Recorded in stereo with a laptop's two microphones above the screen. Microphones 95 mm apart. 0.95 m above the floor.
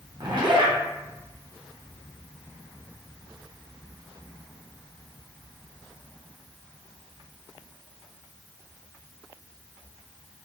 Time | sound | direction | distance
0.2 | a zipper | 50° right (ahead or behind) | 0.8 m